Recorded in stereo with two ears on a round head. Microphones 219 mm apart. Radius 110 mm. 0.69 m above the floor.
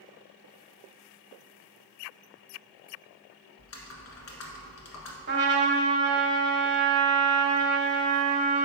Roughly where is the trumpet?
Right.